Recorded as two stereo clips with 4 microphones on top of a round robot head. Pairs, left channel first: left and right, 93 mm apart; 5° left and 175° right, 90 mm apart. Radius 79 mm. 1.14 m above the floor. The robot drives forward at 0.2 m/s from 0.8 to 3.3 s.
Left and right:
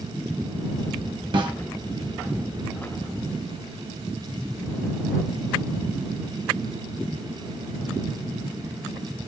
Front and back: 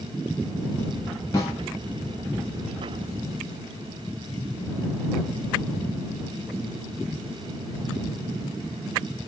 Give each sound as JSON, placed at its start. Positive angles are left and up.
{"t": 1.3, "sound": "a snare drum", "azimuth_deg": -55, "distance_m": 1.1}